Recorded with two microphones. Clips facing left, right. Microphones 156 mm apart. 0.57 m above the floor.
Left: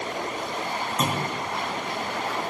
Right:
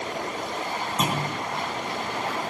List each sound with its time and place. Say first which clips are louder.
1.0 s a clunk: even; 15° right (ahead or behind), 3.5 m